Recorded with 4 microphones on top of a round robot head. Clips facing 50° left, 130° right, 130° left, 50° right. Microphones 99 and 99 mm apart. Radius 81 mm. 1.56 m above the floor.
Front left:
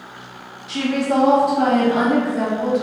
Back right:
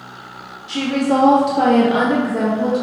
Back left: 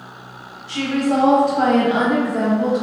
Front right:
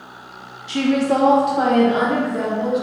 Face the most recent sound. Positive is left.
turn(degrees=-165)